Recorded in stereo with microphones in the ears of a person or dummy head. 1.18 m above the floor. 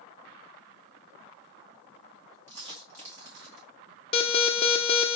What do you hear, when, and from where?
2.5 s a dropped coin: 35° right (ahead or behind), 3.5 m
4.1 s an alarm: 30° left (ahead or behind), 0.9 m